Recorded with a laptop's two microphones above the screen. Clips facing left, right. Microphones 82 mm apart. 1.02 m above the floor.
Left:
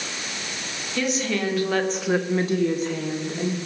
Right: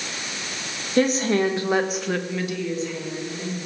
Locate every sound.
1.0 s a woman speaking: 40° right (ahead or behind), 1.7 m; by 3.5 s 65° left (ahead or behind), 1.9 m